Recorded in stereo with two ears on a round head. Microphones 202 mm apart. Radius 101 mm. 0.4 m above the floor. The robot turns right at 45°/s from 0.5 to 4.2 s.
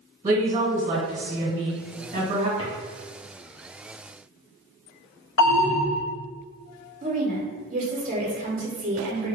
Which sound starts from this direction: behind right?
A woman speaking, at 0.2 s.